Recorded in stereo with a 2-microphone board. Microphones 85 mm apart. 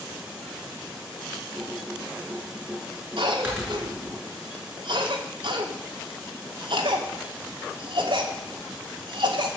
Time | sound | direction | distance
1.6 | typing on a keyboard | 25° right (ahead or behind) | 7 m
3.2 | a cough | 75° right (ahead or behind) | 3 m